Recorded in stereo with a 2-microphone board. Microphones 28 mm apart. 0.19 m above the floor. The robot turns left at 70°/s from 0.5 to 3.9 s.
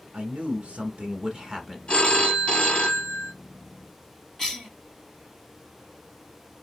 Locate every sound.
0.1 s a man speaking: 75° right, 1.6 m; by 1.8 s 165° right, 1.6 m
1.9 s a phone ringing: 120° left, 1.0 m; by 3.3 s 20° left, 1.0 m
4.4 s a cough: 20° left (ahead or behind), 1.0 m